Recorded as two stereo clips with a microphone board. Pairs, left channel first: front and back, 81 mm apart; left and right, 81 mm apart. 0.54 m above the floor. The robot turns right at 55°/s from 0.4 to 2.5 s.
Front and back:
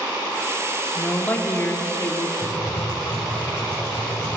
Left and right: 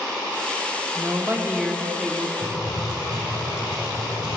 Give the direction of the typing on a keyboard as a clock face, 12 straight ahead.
2 o'clock.